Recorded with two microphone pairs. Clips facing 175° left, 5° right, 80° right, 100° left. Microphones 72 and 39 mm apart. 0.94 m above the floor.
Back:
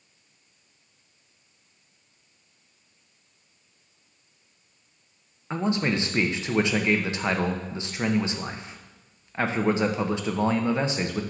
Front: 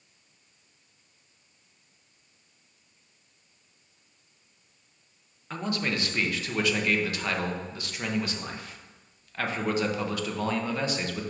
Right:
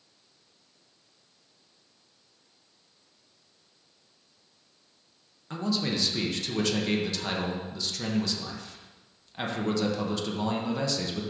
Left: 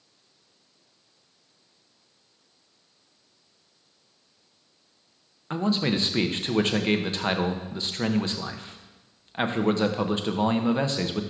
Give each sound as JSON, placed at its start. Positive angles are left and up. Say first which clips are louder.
{"t": 5.5, "sound": "a man speaking", "louder": "back 5 dB, left 4 dB", "azimuth_deg": 115, "distance_m": 0.6}